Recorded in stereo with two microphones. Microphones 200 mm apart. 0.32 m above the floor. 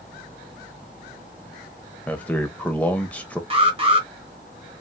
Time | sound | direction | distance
2.1 | a man speaking | 5° left (ahead or behind) | 0.9 m
3.5 | an alarm | 30° right (ahead or behind) | 1.4 m